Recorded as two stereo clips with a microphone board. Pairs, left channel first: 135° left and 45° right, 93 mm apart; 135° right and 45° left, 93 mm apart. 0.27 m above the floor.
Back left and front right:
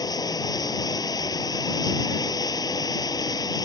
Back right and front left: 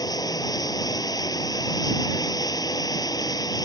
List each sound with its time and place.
0.0 s running water: straight behind